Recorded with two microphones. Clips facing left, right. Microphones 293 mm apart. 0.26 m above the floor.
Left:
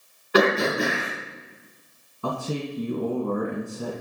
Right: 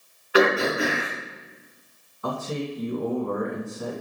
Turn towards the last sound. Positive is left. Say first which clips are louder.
# even
turn(degrees=40)  # may be behind; listen again after turning